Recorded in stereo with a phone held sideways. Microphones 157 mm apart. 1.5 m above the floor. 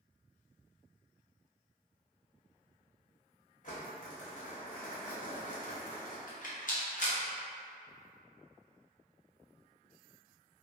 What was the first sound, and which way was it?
Crumpling, 55° left (ahead or behind).